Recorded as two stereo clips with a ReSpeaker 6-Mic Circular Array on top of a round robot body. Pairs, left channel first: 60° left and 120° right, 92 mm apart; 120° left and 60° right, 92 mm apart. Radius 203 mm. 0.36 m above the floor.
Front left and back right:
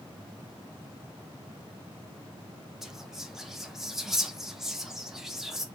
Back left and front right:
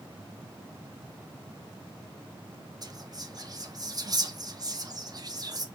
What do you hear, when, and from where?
2.8 s whispering: 35° right, 1.1 m